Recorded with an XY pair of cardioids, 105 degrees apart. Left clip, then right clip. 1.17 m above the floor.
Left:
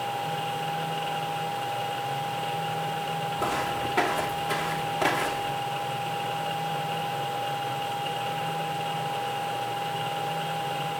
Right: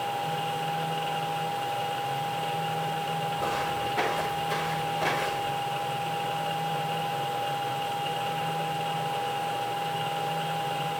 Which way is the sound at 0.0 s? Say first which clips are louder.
Even; 5° left.